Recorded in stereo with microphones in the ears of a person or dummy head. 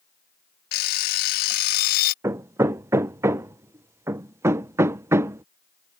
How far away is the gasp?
No gasp in this recording.